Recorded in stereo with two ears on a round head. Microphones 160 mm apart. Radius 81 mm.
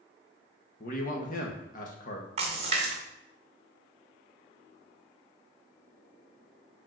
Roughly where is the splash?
Right.